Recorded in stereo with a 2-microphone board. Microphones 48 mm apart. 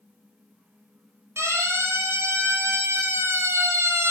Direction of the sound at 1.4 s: 75° right (ahead or behind).